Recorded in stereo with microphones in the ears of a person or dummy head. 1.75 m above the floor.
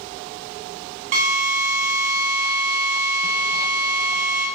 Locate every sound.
1.1 s a drill: 40° right (ahead or behind), 0.6 m